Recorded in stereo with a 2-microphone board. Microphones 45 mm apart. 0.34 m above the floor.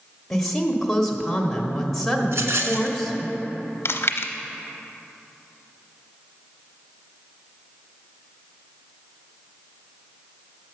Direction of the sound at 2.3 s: 80° right.